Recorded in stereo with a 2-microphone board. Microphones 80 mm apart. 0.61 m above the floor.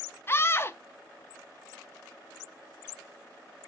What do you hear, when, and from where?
0.3 s a scream: 30° left (ahead or behind), 0.6 m